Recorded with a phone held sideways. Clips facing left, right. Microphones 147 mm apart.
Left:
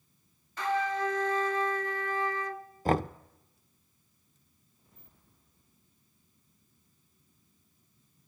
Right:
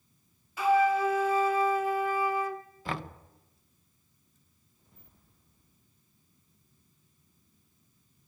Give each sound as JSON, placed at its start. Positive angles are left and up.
{"t": 0.6, "sound": "a flute", "side_deg": -10, "distance_m": 0.8}
{"t": 2.9, "sound": "knocking", "side_deg": 45, "distance_m": 0.5}